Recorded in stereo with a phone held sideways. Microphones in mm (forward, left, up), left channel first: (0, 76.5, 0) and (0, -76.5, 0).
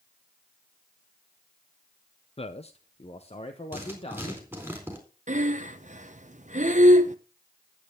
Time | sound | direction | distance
2.4 | a man speaking | 40° left (ahead or behind) | 0.5 m
3.7 | writing | 10° right (ahead or behind) | 4 m
5.3 | breathing | 55° right (ahead or behind) | 0.8 m